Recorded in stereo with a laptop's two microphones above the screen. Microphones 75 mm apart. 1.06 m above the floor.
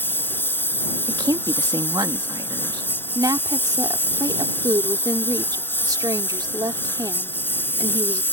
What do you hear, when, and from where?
0.0 s a lawn mower: 30° left (ahead or behind)
1.1 s a woman speaking: 70° right (ahead or behind)
3.1 s a woman speaking: 65° right (ahead or behind)